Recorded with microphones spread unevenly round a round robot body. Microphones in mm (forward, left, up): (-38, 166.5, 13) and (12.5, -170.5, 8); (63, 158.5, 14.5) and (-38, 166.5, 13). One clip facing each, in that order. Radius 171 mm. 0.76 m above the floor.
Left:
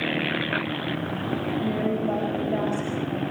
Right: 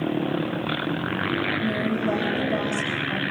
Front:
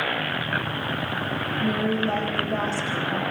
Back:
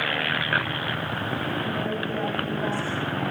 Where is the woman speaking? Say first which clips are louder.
Even, front 4 dB; 25° right, 4.5 m.